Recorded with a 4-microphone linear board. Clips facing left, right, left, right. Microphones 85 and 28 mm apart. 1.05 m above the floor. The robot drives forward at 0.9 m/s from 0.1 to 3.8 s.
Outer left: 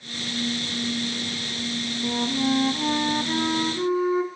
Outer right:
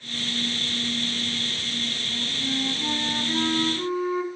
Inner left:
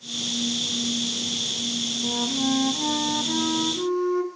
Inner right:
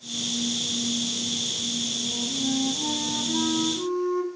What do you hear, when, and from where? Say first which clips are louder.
2.0 s a flute: outer left 8 dB, inner left 3 dB; 75° left (ahead or behind), 0.6 m; by 4.3 s 20° left (ahead or behind), 1.6 m